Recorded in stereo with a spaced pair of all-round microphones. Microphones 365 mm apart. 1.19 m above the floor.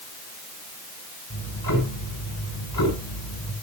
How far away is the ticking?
About 6 m.